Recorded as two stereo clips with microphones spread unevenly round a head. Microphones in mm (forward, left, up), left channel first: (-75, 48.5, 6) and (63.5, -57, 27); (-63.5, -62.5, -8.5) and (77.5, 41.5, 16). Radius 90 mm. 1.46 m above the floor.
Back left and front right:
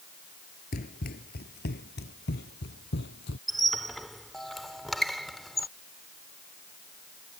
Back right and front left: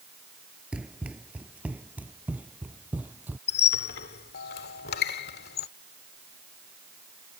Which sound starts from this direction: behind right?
A squeak, at 3.5 s.